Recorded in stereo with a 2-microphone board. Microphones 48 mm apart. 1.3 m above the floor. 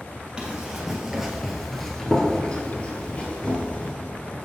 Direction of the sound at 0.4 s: 20° right (ahead or behind).